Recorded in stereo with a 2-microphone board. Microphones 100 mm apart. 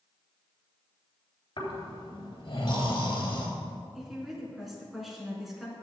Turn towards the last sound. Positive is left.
turn(degrees=0)  # may be behind; listen again after turning